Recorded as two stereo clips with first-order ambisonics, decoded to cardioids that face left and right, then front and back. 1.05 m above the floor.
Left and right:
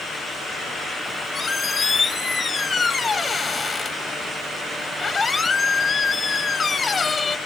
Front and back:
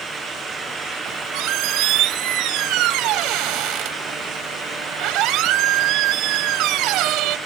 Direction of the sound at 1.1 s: 160° left.